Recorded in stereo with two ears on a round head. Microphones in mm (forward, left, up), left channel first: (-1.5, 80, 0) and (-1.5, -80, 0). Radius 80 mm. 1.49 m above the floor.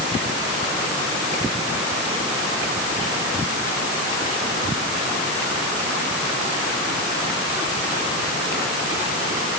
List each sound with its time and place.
Only background noise.